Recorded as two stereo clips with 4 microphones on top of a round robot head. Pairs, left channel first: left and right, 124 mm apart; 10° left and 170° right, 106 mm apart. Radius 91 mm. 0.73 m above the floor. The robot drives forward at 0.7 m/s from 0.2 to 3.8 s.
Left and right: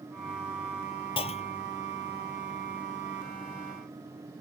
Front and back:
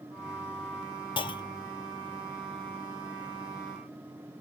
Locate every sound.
1.2 s a clunk: 45° left; by 1.7 s 70° left